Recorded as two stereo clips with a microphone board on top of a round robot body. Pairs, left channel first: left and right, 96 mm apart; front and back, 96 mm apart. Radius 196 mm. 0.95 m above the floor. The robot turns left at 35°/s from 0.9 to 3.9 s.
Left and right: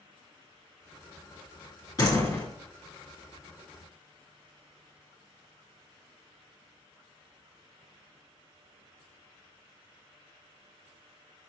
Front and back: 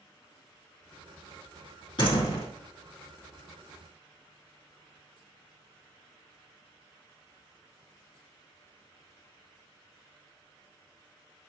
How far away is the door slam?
About 1.8 m.